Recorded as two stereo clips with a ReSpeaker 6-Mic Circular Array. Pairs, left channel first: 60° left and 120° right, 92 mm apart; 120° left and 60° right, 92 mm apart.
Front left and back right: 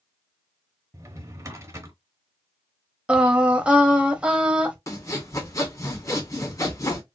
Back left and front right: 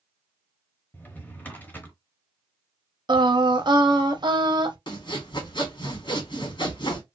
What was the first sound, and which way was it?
A drawer, 170° right.